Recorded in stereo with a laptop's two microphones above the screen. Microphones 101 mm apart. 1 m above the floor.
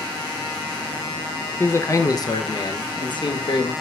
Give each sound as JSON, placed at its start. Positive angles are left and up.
{"t": 1.6, "sound": "a man speaking", "side_deg": 20, "distance_m": 0.6}